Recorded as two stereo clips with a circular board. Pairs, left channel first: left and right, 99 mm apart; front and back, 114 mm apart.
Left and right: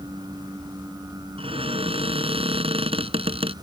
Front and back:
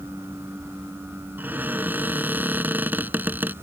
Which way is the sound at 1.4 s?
105° right.